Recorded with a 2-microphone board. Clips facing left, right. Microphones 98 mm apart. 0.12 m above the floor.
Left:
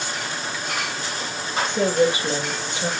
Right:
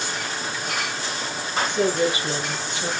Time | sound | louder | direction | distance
1.6 | a woman speaking | left 3 dB | 25° left (ahead or behind) | 4 m